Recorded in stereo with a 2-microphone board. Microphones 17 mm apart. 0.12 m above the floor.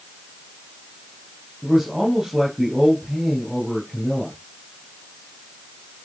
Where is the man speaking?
25° right (ahead or behind), 3.5 m.